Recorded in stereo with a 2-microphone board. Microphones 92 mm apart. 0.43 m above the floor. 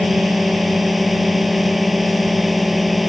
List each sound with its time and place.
0.0 s a drone: centre (ahead or behind)